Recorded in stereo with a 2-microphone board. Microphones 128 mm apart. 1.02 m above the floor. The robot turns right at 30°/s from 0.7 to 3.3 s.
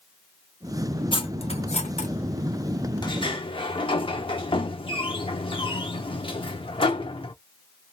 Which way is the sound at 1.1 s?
40° left (ahead or behind).